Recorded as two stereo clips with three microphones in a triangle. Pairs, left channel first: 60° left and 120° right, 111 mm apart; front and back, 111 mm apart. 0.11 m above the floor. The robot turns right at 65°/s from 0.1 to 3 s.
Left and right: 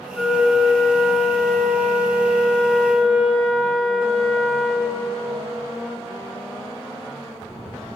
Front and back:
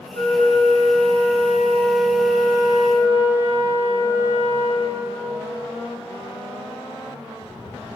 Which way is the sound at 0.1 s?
40° right.